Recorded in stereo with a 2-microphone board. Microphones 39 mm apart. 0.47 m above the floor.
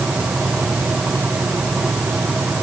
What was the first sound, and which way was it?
Only background noise.